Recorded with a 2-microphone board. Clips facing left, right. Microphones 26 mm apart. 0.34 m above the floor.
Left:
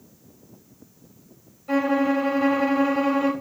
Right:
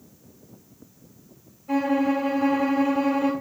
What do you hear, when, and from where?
1.7 s a violin: 40° left (ahead or behind), 1.6 m